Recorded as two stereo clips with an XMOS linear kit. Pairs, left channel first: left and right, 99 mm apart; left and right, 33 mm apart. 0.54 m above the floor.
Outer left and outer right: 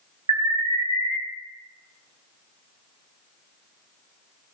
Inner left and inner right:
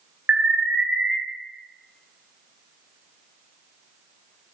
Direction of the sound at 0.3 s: 65° right (ahead or behind).